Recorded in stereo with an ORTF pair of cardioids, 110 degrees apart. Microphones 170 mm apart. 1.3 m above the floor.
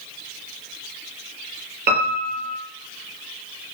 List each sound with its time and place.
1.9 s a piano: 70° right, 5 m